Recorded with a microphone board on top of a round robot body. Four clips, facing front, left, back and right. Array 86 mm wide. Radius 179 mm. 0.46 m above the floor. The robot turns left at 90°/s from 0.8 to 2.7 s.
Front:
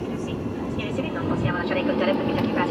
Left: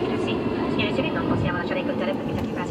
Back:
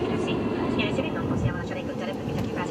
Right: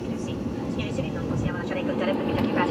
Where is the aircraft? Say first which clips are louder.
Left 6 dB, back 3 dB; 115° left; by 2.7 s 50° right.